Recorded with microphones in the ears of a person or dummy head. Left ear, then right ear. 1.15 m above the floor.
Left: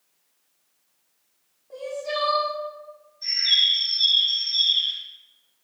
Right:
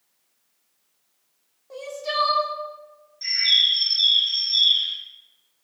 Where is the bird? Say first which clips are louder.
Right 1 dB; 65° right (ahead or behind), 2 m.